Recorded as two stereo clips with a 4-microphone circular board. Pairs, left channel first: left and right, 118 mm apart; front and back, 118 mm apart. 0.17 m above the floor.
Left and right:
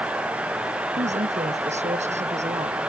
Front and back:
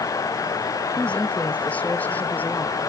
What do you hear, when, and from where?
1.0 s a woman speaking: 80° right; by 2.8 s 75° right